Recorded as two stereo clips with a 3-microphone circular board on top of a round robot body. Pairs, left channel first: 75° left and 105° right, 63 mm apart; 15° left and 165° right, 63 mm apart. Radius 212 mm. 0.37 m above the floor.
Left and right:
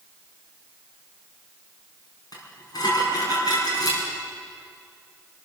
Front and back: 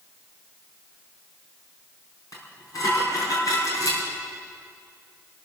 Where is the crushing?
I don't hear crushing.